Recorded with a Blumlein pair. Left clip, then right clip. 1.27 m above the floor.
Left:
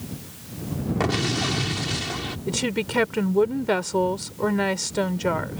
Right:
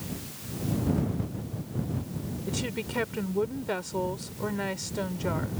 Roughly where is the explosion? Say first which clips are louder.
Left 12 dB; ahead left.